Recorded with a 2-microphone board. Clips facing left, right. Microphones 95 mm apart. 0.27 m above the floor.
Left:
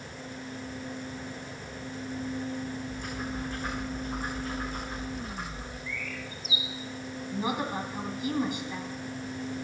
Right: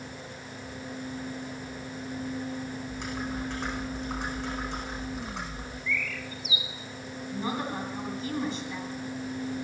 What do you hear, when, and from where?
2.9 s typing on a keyboard: 80° right, 8.5 m
5.9 s a bird: 35° left (ahead or behind), 1.3 m
7.3 s a woman speaking: 15° left (ahead or behind), 1.8 m